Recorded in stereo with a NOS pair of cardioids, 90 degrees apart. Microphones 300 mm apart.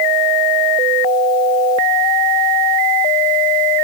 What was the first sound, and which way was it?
Only background noise.